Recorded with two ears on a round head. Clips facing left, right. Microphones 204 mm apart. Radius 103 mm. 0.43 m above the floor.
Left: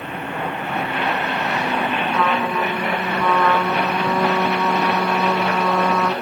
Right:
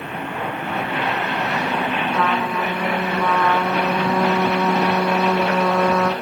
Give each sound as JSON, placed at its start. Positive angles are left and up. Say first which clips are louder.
{"t": 2.1, "sound": "a trumpet", "louder": "left 2 dB", "side_deg": -5, "distance_m": 2.0}